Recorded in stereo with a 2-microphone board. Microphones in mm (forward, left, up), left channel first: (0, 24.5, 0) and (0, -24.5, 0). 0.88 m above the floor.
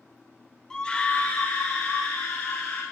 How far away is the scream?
About 1.1 m.